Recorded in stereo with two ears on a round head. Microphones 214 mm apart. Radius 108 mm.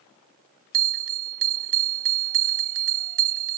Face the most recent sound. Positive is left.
turn(degrees=-60)  # may be behind; listen again after turning